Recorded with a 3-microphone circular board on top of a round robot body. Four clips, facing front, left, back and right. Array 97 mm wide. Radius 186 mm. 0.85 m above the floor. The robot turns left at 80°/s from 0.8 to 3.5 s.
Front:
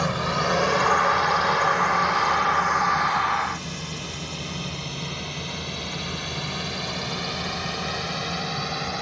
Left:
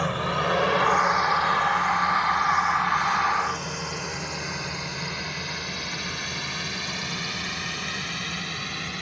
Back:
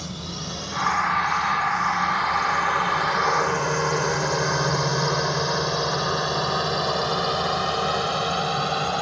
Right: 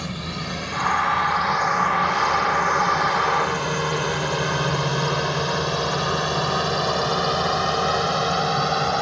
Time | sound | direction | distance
0.0 | a drone | 35° left | ?